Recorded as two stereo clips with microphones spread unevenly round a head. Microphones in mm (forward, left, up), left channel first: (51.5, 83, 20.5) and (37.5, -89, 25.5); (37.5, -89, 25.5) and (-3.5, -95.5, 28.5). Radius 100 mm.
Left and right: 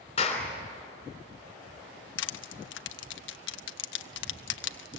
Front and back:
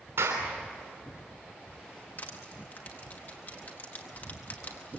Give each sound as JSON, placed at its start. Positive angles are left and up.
{"t": 0.2, "sound": "a clap", "azimuth_deg": 150, "distance_m": 3.5}
{"t": 2.2, "sound": "crushing", "azimuth_deg": 75, "distance_m": 0.9}